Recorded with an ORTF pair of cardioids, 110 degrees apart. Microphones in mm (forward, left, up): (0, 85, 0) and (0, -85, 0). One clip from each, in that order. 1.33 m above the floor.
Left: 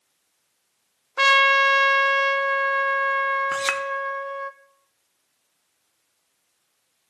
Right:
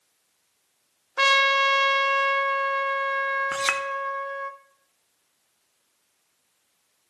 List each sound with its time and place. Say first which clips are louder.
1.2 s a trumpet: left 3 dB; 5° left, 0.8 m
3.5 s a clink: left 1 dB; straight ahead, 0.9 m